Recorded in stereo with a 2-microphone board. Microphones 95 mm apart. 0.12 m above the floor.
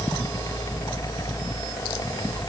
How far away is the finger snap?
I don't hear a finger snap.